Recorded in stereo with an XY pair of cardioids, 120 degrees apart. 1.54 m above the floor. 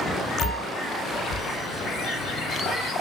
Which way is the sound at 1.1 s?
50° left.